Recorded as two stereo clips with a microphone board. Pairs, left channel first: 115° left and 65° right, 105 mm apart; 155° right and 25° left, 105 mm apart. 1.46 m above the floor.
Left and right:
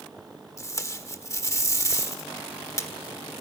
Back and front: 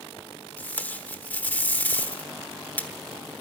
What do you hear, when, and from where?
0.6 s tape being pulled: 140° left, 1.2 m